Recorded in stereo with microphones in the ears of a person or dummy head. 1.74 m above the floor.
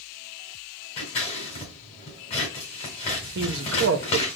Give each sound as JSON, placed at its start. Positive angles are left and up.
{"t": 1.0, "sound": "scissors", "side_deg": 10, "distance_m": 1.6}
{"t": 3.4, "sound": "a man speaking", "side_deg": -65, "distance_m": 0.8}